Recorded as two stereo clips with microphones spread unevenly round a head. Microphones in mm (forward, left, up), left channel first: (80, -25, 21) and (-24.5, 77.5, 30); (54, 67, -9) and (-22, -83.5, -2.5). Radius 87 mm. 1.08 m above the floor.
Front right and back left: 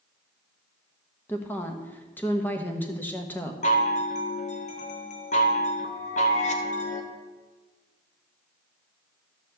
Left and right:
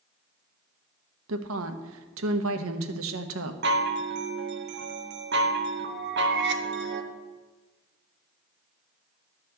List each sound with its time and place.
1.3 s a woman speaking: 125° right, 1.0 m
3.6 s a chime: 95° right, 1.0 m